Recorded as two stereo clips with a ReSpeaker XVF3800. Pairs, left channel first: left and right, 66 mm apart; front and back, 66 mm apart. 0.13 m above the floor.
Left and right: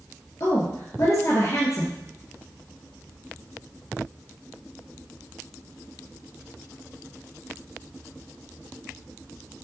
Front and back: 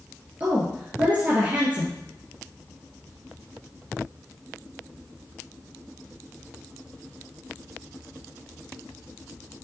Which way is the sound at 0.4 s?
120° left.